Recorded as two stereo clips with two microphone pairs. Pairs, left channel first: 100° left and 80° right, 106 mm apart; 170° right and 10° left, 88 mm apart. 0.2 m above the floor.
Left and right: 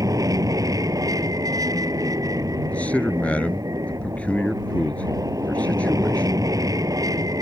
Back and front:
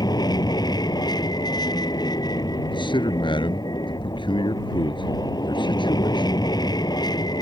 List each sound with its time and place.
0.0 s an aircraft: 135° right
2.7 s a man speaking: 175° left